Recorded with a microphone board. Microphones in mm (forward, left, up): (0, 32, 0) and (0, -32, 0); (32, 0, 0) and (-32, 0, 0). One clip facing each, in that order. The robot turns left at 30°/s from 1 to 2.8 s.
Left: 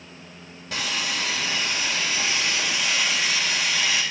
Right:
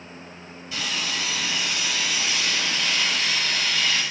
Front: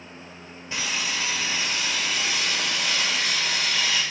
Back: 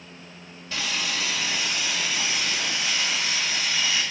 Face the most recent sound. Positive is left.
turn(degrees=15)